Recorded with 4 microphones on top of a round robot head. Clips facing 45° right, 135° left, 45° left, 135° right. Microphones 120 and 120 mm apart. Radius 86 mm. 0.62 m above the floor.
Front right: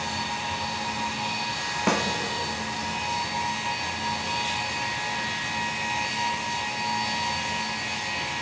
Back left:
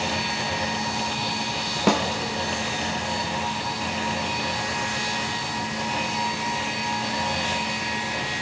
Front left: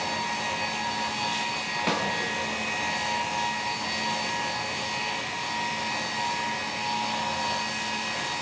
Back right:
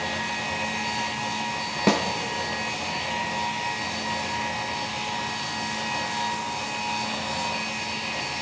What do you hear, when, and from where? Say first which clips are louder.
1.9 s a snare drum: back left 4 dB, back right 7 dB; 165° right, 1.4 m